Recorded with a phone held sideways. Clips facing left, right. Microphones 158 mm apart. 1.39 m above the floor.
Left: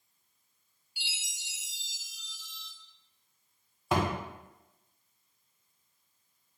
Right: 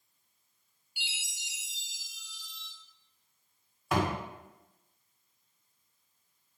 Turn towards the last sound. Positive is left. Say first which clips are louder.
# even
turn(degrees=30)  # may be behind; listen again after turning